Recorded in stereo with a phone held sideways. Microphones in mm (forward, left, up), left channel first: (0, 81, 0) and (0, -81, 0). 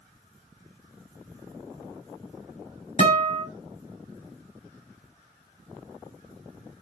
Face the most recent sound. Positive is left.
turn(degrees=40)  # may be behind; listen again after turning